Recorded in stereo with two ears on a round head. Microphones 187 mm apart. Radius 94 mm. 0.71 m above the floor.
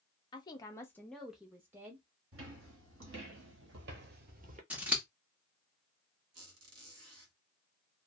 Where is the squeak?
80° right, 1.6 m.